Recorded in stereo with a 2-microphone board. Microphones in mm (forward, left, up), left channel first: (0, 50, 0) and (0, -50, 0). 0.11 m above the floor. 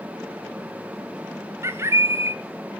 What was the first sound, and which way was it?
A bird, 25° right (ahead or behind).